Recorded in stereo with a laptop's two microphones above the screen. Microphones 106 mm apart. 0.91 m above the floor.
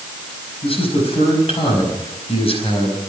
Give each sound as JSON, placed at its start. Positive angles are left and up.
{"t": 0.6, "sound": "a man speaking", "side_deg": 65, "distance_m": 5.0}